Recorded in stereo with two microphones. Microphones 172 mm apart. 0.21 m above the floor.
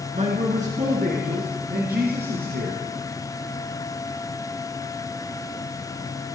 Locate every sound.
0.1 s a man speaking: 40° right (ahead or behind), 3 m; by 2.8 s 70° right (ahead or behind), 4 m